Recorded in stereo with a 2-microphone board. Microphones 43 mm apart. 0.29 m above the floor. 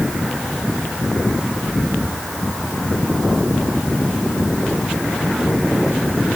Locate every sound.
Only background noise.